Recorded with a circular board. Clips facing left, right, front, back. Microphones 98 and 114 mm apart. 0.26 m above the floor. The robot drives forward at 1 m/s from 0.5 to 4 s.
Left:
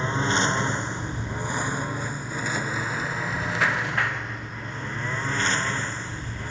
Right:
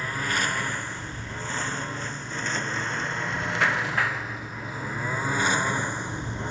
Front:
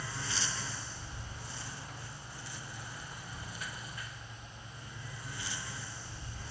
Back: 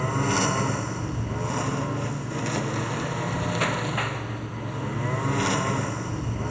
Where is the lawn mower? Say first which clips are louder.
Left 4 dB, back 17 dB; 155° left; by 6.5 s 160° right.